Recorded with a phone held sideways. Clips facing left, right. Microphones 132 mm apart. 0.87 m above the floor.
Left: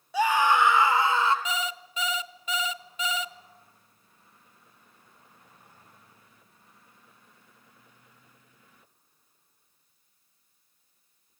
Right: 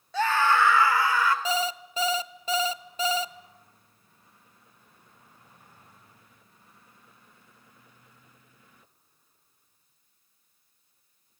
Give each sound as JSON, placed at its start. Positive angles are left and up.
{"t": 0.1, "sound": "a scream", "side_deg": 10, "distance_m": 2.5}
{"t": 1.4, "sound": "an alarm clock", "side_deg": -30, "distance_m": 0.9}